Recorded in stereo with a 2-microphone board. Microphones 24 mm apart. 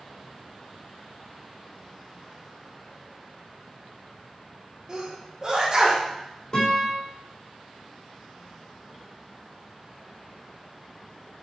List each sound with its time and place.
4.9 s a sneeze: 30° right (ahead or behind), 2 m
6.5 s a guitar: 45° left (ahead or behind), 3.5 m